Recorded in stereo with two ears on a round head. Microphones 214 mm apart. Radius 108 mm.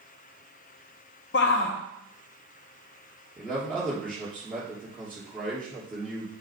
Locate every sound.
1.3 s a shout: 50° left (ahead or behind), 0.5 m
3.4 s a man speaking: 5° left (ahead or behind), 2.5 m